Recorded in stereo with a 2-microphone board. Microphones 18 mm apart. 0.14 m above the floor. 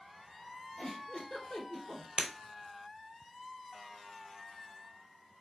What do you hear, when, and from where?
0.8 s a giggle: 55° left (ahead or behind), 1.5 m
2.2 s breaking glass: 55° right (ahead or behind), 0.8 m